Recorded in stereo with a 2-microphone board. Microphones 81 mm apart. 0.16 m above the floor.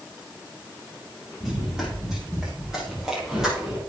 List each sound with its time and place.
1.4 s running footsteps: 5° right (ahead or behind), 8 m; by 3.8 s 10° right (ahead or behind), 6 m